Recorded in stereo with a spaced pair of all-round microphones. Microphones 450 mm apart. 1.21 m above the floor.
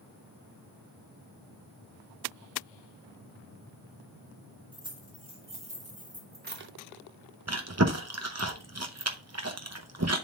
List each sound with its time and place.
4.7 s keys jangling: 10° right (ahead or behind), 2.5 m; by 6.7 s 25° right (ahead or behind), 1.1 m
7.5 s chewing: 35° right (ahead or behind), 0.8 m